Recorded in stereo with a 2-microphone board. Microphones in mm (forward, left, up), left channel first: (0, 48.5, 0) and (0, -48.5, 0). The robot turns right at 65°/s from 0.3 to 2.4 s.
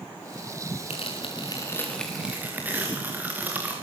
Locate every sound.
0.9 s tearing paper: 100° left, 5.5 m; by 3.7 s 160° right, 5.5 m